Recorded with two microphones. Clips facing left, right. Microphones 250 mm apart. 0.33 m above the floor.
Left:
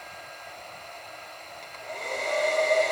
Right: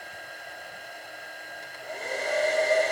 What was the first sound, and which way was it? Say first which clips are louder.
A hair dryer: right 1 dB; 10° right (ahead or behind).